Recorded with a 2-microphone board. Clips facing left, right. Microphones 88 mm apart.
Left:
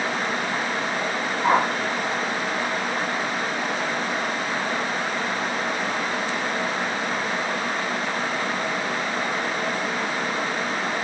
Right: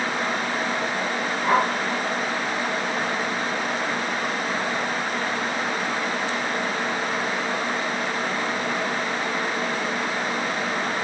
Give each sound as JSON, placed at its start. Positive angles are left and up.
{"t": 1.4, "sound": "a whoosh", "side_deg": 25, "distance_m": 1.1}